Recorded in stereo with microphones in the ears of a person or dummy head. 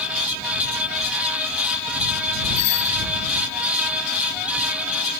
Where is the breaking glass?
I don't hear breaking glass.